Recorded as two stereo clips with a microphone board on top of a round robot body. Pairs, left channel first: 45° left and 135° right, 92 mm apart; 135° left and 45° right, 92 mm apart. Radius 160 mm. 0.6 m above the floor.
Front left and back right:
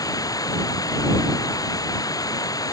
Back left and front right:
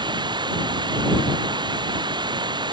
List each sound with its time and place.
0.0 s running water: 5° right